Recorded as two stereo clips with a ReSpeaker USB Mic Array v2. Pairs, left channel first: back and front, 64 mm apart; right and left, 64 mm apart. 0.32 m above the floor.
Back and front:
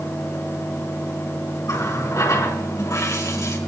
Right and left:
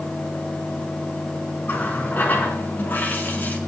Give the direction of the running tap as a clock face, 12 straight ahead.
5 o'clock.